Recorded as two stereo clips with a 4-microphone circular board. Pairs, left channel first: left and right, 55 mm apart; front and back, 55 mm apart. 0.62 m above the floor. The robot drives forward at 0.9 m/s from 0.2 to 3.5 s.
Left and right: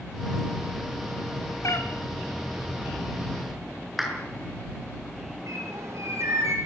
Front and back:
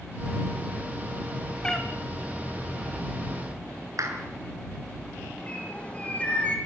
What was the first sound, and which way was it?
A cat meowing, 75° left.